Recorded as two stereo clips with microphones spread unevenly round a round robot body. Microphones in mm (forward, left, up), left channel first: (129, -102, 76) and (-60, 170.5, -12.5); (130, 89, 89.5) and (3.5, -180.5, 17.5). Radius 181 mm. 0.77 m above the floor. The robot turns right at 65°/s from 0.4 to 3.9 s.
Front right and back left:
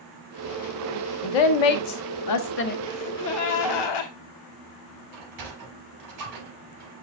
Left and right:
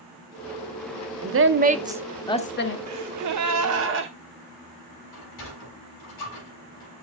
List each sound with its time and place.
1.2 s a woman speaking: 85° right, 1.2 m; by 2.8 s 15° left, 1.2 m
2.9 s a gasp: 140° right, 1.6 m; by 4.1 s 70° right, 1.6 m
5.1 s a sliding door: 100° left, 7 m